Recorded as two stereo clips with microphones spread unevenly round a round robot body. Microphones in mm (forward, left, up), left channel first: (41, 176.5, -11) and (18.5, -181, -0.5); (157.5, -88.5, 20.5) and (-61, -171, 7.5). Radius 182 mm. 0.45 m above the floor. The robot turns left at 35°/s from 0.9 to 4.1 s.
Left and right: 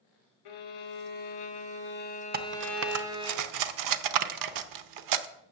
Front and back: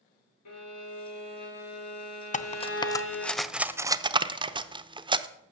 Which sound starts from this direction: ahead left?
A violin, at 0.5 s.